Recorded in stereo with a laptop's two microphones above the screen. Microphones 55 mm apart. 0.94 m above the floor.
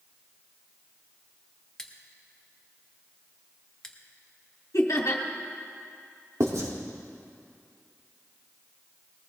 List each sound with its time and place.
1.8 s scissors: 10° left (ahead or behind), 1.5 m
4.7 s laughter: 70° left (ahead or behind), 2 m
6.4 s writing: 70° right (ahead or behind), 2 m